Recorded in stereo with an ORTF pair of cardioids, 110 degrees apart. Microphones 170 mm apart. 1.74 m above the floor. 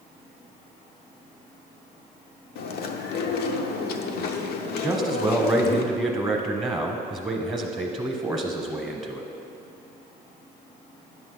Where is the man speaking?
10° right, 0.9 m.